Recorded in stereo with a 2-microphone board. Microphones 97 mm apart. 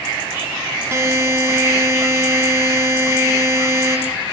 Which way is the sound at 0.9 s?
25° right (ahead or behind).